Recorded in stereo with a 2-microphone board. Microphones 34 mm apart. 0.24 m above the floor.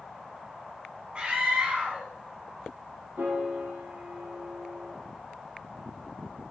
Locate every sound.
1.1 s a scream: 30° right (ahead or behind), 2.5 m
3.2 s a piano: 70° right (ahead or behind), 6 m